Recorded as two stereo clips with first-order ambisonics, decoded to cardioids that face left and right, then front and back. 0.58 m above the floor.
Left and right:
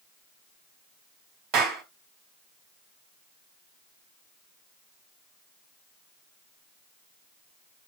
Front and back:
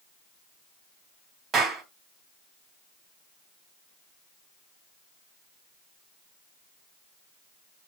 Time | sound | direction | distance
1.5 | a clap | 120° right | 3 m